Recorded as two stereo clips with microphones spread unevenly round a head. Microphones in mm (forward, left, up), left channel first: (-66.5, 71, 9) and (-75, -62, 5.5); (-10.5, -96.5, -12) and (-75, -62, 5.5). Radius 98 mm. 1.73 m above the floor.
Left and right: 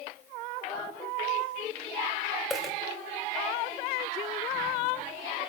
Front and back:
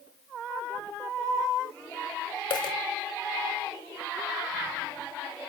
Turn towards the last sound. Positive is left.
turn(degrees=0)